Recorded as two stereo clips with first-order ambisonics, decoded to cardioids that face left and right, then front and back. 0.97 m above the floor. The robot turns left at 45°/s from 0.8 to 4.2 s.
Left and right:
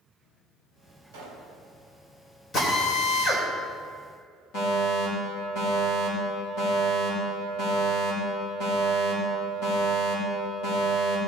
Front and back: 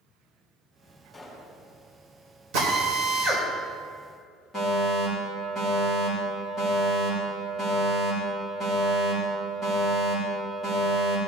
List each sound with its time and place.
1.1 s a pop: 90° right, 3.5 m; by 1.5 s 110° right, 3.5 m
2.5 s a drill: 155° left, 3 m; by 3.5 s 110° left, 3 m
4.5 s a fire alarm: 85° left, 4.5 m